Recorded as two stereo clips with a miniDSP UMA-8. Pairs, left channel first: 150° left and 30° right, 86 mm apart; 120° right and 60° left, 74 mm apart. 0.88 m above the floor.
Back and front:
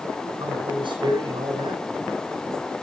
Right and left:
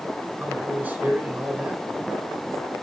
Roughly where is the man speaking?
Ahead.